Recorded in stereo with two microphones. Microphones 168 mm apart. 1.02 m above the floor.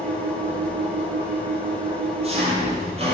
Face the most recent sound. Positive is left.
turn(degrees=-35)  # may be behind; listen again after turning